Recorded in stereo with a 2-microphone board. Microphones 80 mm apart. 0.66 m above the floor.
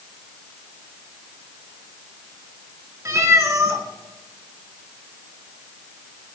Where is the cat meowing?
40° right (ahead or behind), 2.5 m.